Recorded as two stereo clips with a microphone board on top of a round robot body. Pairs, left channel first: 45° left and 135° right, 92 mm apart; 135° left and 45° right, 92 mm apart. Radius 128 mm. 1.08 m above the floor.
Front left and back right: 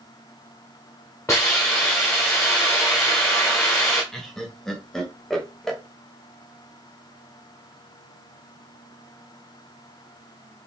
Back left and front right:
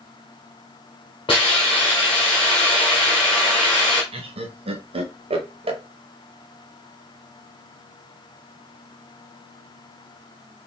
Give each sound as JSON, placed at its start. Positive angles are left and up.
{"t": 1.3, "sound": "a hiss", "azimuth_deg": 105, "distance_m": 1.2}
{"t": 4.1, "sound": "laughter", "azimuth_deg": -40, "distance_m": 1.4}